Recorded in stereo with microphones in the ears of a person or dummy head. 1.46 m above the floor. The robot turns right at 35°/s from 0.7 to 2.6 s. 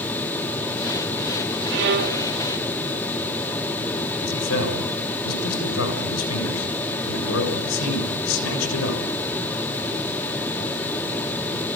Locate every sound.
1.7 s a violin: 65° right (ahead or behind), 3 m; by 2.2 s 45° right (ahead or behind), 3 m
4.2 s a man speaking: 85° left, 7 m